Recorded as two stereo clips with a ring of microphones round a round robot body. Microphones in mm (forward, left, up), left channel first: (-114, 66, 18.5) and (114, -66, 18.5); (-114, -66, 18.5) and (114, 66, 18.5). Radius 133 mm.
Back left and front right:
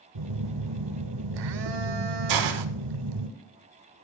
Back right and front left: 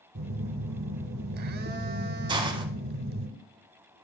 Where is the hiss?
45° right, 0.7 m.